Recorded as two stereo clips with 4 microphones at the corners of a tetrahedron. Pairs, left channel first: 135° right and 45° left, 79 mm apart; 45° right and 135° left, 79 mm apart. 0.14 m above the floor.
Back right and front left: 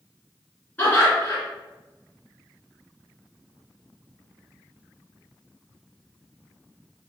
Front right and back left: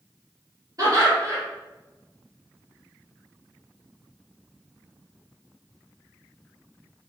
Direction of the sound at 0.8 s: 160° left.